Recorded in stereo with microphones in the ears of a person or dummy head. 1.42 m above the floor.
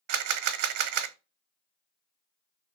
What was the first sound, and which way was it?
A camera shutter, 55° right (ahead or behind).